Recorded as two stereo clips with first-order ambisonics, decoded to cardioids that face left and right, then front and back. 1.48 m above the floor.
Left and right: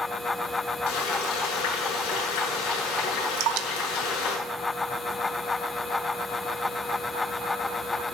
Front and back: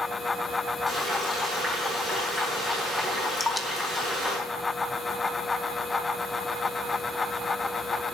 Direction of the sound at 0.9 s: 95° left.